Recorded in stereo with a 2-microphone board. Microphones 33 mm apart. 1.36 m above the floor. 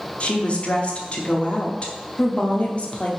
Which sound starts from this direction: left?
A woman speaking, at 0.2 s.